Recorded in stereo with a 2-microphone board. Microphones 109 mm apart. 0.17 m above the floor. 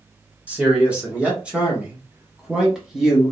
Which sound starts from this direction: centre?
A man speaking, at 0.5 s.